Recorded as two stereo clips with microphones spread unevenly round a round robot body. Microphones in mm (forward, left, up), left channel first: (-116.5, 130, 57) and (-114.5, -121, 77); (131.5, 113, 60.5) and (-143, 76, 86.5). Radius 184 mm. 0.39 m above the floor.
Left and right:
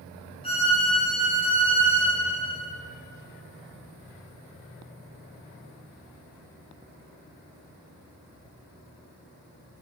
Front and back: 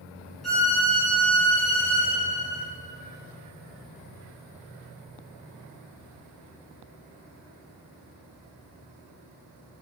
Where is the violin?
85° left, 0.8 m.